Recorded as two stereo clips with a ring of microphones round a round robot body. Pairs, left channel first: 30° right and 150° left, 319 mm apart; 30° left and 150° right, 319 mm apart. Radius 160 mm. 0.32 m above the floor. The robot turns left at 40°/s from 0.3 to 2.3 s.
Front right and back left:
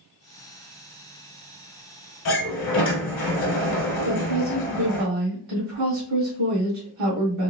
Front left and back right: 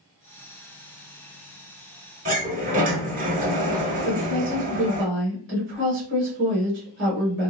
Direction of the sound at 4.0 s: 160° left.